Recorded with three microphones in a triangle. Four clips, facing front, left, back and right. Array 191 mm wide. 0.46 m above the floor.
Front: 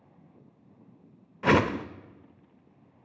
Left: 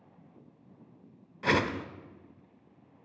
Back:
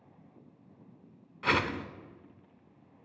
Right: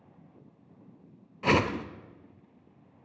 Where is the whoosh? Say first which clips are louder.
Right 2 dB, front 7 dB; 10° right, 1.0 m.